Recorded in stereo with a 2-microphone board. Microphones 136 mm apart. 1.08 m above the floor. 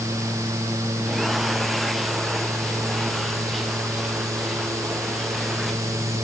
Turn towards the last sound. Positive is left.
No sound to turn to.